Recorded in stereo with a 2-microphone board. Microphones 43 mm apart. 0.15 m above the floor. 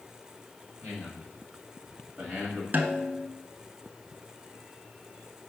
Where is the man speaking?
60° right (ahead or behind), 2.5 m; by 2.6 s 40° right (ahead or behind), 1.4 m.